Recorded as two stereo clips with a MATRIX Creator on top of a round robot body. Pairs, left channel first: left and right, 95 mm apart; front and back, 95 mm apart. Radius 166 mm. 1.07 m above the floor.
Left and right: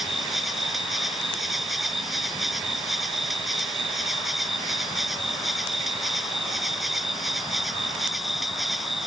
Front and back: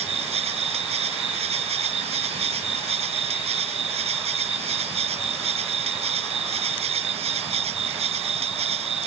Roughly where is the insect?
Behind.